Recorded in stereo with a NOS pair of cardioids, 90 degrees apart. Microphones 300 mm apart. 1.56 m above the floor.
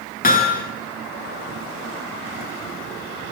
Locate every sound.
0.2 s hammering: 30° left, 7 m